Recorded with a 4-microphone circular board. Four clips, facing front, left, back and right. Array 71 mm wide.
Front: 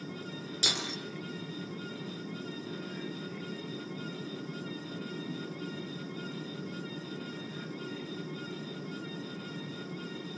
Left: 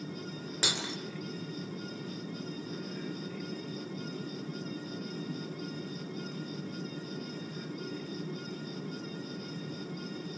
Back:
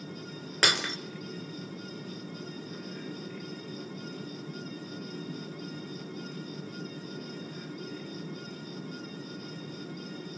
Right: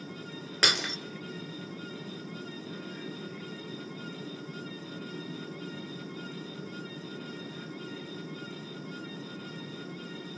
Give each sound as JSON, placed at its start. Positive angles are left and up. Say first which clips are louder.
{"t": 0.6, "sound": "breaking glass", "louder": "right 7 dB, back 9 dB", "azimuth_deg": -150, "distance_m": 2.5}